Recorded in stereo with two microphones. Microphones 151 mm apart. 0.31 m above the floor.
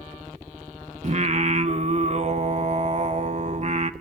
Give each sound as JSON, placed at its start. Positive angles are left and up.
{"t": 1.0, "sound": "singing", "side_deg": -50, "distance_m": 0.7}